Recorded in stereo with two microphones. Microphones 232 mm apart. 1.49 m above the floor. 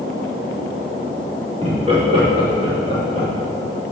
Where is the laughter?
25° right (ahead or behind), 2 m.